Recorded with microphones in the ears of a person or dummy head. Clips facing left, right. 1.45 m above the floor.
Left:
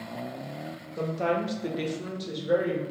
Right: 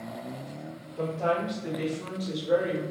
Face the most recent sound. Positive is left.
turn(degrees=5)  # may be behind; listen again after turning